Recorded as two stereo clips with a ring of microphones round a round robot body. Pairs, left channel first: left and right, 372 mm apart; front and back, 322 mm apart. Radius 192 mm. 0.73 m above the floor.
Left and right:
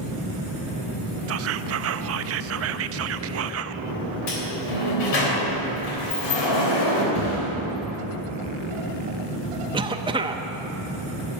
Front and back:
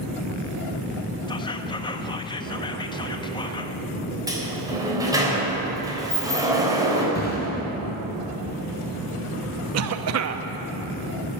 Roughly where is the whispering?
Right.